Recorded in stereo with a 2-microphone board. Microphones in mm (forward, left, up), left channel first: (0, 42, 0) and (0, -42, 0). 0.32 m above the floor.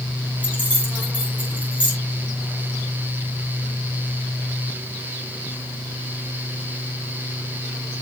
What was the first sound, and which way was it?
Keys jangling, 75° left (ahead or behind).